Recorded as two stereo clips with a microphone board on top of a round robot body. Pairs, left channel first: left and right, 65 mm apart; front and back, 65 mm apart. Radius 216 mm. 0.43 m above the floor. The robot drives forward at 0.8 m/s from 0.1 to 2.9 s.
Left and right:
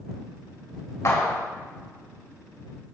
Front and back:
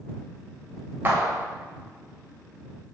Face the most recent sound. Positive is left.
turn(degrees=150)